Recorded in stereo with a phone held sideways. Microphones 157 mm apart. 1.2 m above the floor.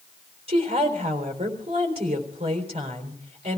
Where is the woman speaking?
40° right (ahead or behind), 3.5 m.